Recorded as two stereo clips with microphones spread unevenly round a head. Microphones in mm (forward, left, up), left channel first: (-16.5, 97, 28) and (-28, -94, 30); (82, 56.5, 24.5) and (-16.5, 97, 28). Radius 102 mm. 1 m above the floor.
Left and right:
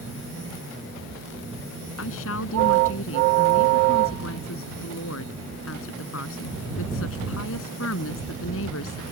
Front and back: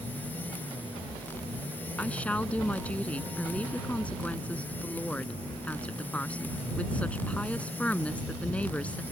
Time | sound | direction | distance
2.0 | a woman speaking | 55° left | ?